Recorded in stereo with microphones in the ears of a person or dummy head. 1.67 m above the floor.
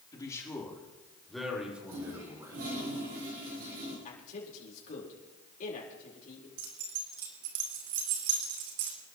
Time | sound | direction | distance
0.1 | a man speaking | 20° left (ahead or behind) | 3.5 m
1.9 | a toilet flushing | 45° right (ahead or behind) | 5 m
4.0 | a man speaking | 45° left (ahead or behind) | 4.5 m
6.6 | keys jangling | 65° right (ahead or behind) | 2.5 m